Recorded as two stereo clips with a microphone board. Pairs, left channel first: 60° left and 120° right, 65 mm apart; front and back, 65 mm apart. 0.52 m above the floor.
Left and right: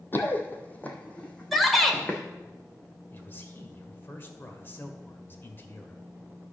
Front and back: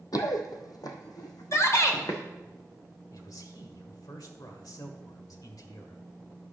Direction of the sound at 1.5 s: 30° right.